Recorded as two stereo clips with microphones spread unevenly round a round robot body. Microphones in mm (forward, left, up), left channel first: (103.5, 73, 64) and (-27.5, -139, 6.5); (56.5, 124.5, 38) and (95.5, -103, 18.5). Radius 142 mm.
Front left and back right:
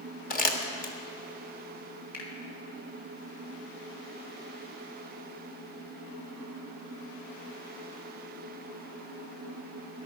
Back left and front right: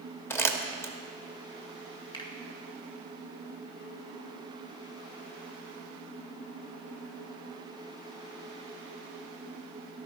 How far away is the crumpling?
About 1.5 m.